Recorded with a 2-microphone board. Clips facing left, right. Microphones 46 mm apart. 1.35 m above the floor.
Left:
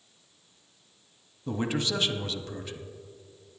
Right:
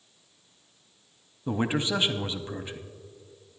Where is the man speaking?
20° right (ahead or behind), 0.7 m.